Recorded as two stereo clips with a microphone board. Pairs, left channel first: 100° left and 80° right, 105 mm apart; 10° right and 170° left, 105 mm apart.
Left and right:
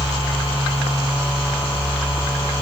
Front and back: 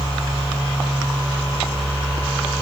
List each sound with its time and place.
Only background noise.